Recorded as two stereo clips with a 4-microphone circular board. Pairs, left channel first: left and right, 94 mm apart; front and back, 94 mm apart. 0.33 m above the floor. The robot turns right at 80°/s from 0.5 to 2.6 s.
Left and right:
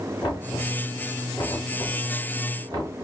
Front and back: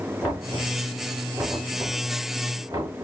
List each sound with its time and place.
0.2 s knocking: 60° left, 2.5 m; by 3.0 s 135° right, 2.5 m